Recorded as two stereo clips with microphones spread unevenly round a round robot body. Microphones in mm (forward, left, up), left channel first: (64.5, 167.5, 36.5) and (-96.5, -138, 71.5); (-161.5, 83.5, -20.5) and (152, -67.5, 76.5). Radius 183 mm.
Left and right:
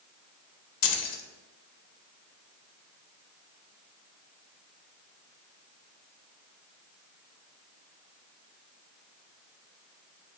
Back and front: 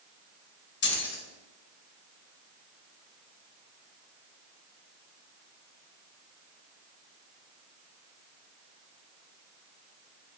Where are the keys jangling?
95° left, 0.6 m.